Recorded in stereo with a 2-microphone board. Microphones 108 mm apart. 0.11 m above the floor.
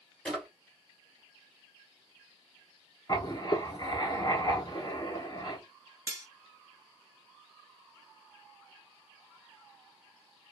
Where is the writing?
40° left (ahead or behind), 0.9 m.